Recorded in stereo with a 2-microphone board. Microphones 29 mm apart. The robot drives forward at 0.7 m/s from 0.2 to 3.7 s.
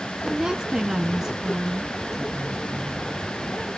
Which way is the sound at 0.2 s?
25° right (ahead or behind).